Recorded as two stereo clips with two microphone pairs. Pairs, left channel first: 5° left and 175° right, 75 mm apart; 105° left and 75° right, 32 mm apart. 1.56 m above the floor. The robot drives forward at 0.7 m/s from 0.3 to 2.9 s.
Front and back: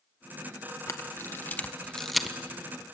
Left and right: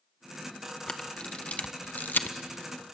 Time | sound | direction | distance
0.9 | a camera shutter | 45° left | 1.3 m